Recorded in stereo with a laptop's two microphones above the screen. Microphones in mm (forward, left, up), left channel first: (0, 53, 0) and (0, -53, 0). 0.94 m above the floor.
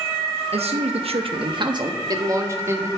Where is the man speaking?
70° right (ahead or behind), 0.9 m; by 2.9 s 25° right (ahead or behind), 1.9 m.